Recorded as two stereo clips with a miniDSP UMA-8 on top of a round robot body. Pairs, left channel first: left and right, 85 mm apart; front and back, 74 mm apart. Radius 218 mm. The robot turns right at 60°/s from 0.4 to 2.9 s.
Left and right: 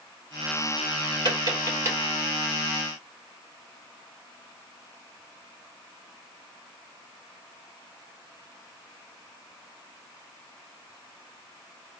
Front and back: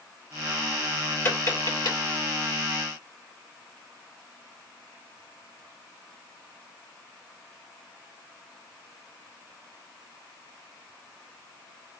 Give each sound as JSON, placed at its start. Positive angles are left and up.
{"t": 1.2, "sound": "tapping", "azimuth_deg": -65, "distance_m": 2.5}